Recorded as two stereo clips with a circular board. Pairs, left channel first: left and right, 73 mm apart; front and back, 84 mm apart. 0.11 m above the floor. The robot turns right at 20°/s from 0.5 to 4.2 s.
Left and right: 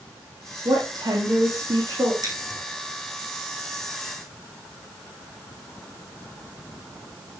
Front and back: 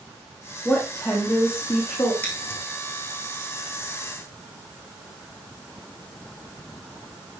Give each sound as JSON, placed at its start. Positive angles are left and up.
{"t": 0.7, "sound": "a woman speaking", "azimuth_deg": -80, "distance_m": 4.5}
{"t": 2.2, "sound": "scissors", "azimuth_deg": -70, "distance_m": 6.0}